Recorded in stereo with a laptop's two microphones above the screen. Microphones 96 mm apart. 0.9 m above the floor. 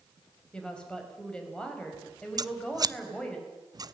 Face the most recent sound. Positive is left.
turn(degrees=-40)  # may be behind; listen again after turning